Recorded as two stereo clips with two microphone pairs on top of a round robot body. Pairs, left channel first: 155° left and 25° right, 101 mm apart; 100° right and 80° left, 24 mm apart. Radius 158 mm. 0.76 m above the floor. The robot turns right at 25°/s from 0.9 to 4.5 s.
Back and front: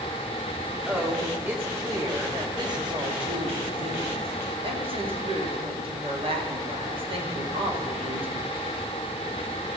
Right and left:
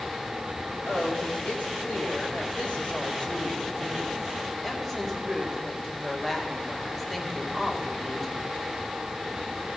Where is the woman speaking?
105° right, 2 m; by 8.5 s 15° right, 2 m.